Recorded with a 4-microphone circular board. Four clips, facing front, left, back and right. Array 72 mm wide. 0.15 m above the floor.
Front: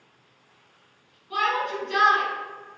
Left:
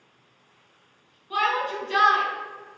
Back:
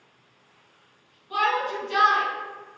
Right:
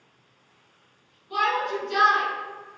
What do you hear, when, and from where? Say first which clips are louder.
1.3 s a shout: even, back 1 dB; 110° left, 1.2 m